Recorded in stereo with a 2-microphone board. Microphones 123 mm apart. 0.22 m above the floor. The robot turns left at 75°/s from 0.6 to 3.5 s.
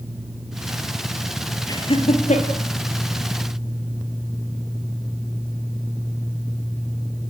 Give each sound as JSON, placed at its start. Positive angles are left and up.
{"t": 1.7, "sound": "laughter", "side_deg": 30, "distance_m": 4.0}